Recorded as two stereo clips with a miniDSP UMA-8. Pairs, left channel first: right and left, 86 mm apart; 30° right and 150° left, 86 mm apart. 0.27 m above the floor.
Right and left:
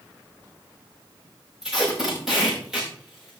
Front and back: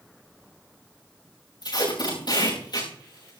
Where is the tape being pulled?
5° left, 8.5 m.